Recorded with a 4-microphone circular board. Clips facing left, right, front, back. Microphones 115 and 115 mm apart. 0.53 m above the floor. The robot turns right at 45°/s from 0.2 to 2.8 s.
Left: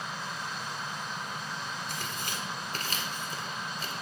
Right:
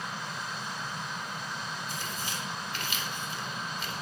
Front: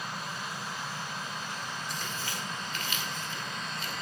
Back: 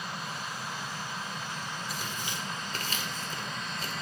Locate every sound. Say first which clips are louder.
1.9 s tearing paper: even, even; 95° left, 1.9 m; by 3.9 s 135° left, 1.9 m